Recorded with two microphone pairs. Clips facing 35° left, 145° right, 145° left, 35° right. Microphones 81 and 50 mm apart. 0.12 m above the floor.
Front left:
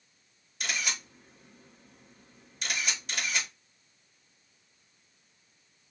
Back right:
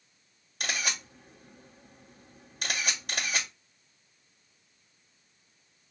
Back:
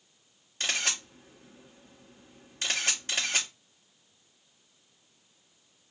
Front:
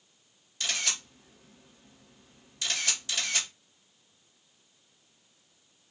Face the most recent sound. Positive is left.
turn(degrees=-170)